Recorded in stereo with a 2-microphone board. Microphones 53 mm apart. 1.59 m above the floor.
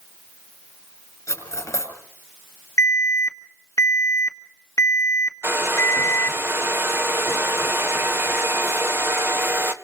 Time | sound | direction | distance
1.3 | cutlery clinking | 75° left (ahead or behind) | 5.5 m
2.8 | an alarm | 65° left (ahead or behind) | 1.9 m
5.4 | a hair dryer | 50° right (ahead or behind) | 1.1 m